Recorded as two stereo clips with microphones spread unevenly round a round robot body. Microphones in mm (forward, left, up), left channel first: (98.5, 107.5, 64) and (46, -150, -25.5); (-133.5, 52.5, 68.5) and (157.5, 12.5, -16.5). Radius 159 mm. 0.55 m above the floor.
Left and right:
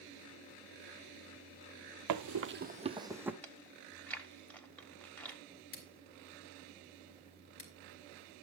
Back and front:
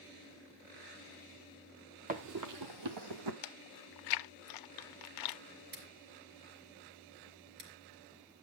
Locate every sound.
2.1 s running footsteps: 80° right, 0.9 m; by 3.3 s 10° right, 1.7 m
3.4 s chewing: 160° left, 0.5 m
5.7 s scissors: 35° left, 3 m